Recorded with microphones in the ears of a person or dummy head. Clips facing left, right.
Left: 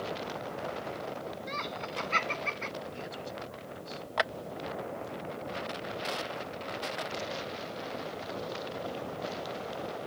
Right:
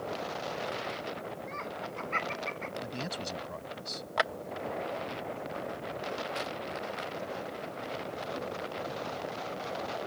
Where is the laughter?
40° left (ahead or behind); by 2.7 s 45° left (ahead or behind).